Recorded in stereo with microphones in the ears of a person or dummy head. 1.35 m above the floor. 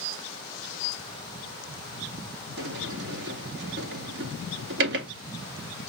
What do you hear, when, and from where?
2.6 s a sliding door: 65° right (ahead or behind), 0.8 m